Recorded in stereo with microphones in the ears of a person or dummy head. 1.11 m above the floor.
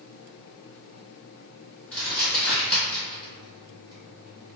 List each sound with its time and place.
1.9 s crumpling: 10° left (ahead or behind), 1.9 m